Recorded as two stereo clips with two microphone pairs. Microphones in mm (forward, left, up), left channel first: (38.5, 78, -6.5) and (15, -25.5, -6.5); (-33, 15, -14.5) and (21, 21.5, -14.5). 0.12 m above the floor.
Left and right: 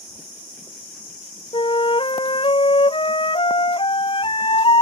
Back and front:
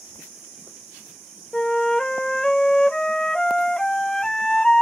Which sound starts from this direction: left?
A flute, at 1.5 s.